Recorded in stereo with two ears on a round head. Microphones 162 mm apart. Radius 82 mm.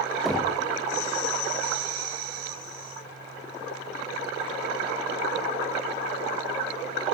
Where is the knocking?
Centre (ahead or behind), 0.9 m.